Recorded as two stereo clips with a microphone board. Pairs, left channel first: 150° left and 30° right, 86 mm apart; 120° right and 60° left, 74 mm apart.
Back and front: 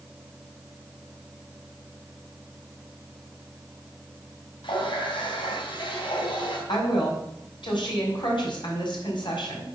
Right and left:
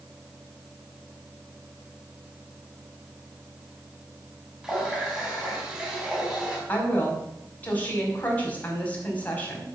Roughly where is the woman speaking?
Behind.